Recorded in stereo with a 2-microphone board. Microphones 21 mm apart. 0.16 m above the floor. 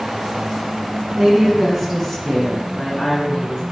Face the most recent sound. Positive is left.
turn(degrees=40)  # may be behind; listen again after turning